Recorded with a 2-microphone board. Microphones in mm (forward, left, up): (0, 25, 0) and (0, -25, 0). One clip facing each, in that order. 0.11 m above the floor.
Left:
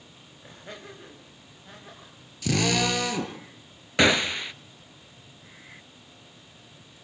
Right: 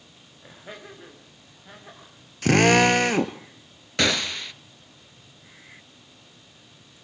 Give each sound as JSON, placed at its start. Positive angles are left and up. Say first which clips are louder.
{"t": 0.4, "sound": "laughter", "louder": "right 1 dB", "side_deg": -5, "distance_m": 5.5}
{"t": 2.4, "sound": "a drill", "louder": "right 8 dB", "side_deg": -50, "distance_m": 1.1}
{"t": 4.0, "sound": "a gunshot", "louder": "left 3 dB", "side_deg": 15, "distance_m": 0.6}